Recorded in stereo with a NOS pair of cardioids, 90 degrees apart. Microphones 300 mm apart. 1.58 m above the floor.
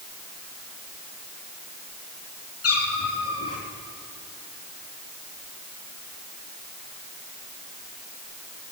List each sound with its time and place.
2.6 s a cat meowing: 55° left, 5 m